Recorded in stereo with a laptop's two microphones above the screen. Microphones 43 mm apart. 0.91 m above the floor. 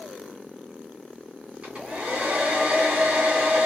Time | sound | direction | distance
1.6 | a hair dryer | 25° right (ahead or behind) | 2 m